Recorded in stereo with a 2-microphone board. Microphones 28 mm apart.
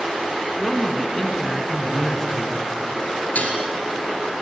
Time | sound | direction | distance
0.6 | a man speaking | 10° left (ahead or behind) | 2.5 m
3.4 | dishes clattering | 65° left (ahead or behind) | 3 m